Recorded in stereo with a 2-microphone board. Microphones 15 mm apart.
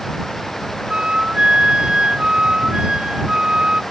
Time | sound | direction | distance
0.9 | a flute | 85° right | ?